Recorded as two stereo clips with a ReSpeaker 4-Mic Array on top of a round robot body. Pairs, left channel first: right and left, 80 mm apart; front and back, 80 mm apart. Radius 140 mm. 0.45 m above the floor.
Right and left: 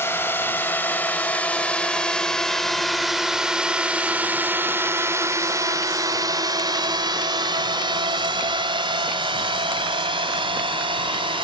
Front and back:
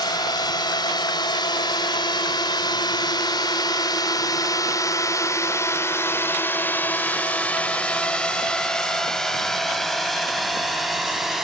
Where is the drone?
30° right; by 11.4 s 95° left.